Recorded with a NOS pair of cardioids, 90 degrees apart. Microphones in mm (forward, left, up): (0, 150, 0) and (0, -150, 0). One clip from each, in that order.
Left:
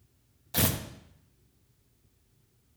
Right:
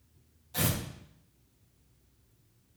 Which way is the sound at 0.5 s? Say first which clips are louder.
Left 3 dB; 55° left.